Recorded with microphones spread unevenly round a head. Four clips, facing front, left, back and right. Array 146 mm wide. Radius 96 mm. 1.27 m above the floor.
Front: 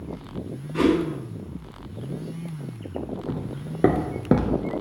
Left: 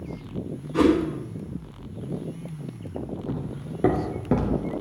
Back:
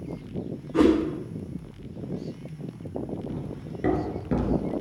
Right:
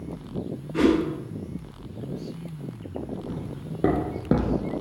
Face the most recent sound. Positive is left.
turn(degrees=-25)